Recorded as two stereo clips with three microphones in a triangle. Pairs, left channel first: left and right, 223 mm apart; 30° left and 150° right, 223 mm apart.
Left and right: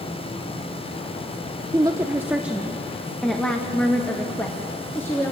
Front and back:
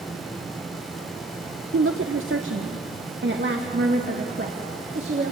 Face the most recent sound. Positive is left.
turn(degrees=170)